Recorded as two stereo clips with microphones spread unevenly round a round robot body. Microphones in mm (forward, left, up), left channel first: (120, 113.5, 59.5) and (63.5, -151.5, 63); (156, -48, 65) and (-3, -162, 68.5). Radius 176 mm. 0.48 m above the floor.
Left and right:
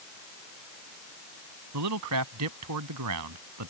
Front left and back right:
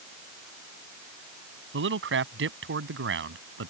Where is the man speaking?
135° right.